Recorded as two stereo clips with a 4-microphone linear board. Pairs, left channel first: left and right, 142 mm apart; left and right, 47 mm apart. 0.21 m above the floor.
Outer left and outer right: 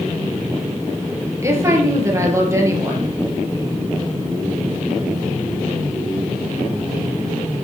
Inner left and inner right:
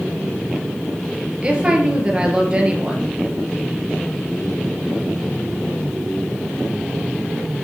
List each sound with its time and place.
1.4 s a woman speaking: 20° right (ahead or behind), 4 m